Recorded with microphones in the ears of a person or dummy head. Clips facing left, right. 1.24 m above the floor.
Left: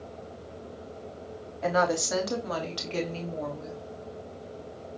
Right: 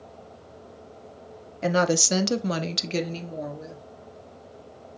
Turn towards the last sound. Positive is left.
turn(degrees=-20)  # may be behind; listen again after turning